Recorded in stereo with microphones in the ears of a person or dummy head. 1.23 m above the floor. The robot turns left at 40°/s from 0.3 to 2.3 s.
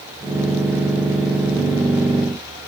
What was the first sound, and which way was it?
Only background noise.